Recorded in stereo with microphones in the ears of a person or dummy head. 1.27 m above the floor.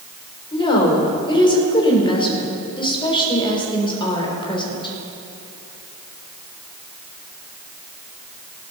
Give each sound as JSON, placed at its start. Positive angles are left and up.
{"t": 0.5, "sound": "a woman speaking", "side_deg": 35, "distance_m": 3.5}